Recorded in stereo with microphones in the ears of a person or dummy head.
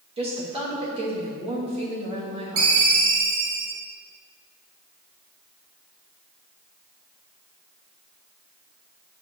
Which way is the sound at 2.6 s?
65° right (ahead or behind).